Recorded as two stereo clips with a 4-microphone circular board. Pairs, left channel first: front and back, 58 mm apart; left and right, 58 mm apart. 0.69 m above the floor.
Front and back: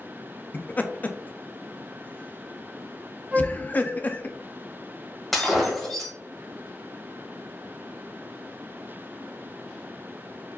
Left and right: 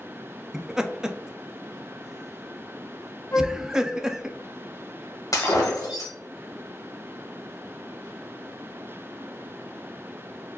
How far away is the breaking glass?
About 1.7 m.